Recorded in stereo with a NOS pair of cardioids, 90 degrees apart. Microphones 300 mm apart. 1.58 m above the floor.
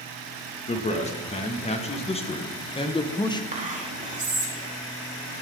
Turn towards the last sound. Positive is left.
turn(degrees=-25)